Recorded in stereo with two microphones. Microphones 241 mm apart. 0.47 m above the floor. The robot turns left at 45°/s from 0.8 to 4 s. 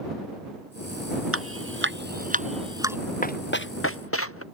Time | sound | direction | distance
1.3 | dripping | 80° right | ?
3.2 | running footsteps | 35° left (ahead or behind) | ?